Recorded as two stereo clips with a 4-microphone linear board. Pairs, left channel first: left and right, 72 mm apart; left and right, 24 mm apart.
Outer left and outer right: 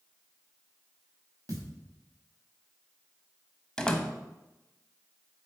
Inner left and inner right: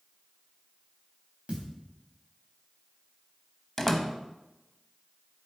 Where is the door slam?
15° left (ahead or behind), 0.6 m.